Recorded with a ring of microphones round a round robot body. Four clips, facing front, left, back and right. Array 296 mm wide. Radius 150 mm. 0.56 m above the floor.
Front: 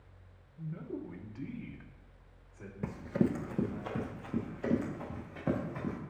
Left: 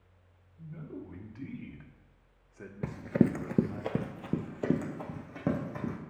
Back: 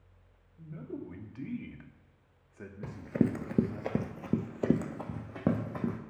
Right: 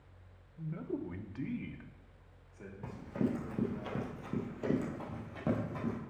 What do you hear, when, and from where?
0.6 s a man speaking: 85° right, 1.1 m; by 3.8 s 125° left, 1.3 m
2.8 s running footsteps: 75° left, 0.6 m; by 6.0 s 165° left, 2 m